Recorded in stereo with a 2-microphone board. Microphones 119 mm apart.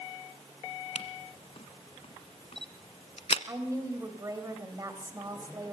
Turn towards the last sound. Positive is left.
turn(degrees=-25)  # may be behind; listen again after turning